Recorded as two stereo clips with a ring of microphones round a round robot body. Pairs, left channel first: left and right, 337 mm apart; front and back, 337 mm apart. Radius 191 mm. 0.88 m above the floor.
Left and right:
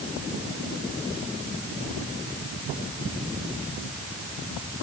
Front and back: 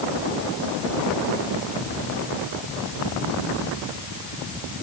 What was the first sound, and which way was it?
Only background noise.